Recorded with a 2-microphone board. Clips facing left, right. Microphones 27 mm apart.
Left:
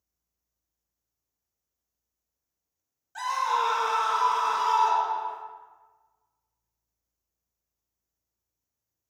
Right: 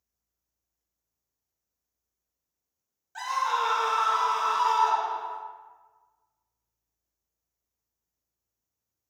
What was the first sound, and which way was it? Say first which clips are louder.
A scream: left 1 dB; 5° right (ahead or behind).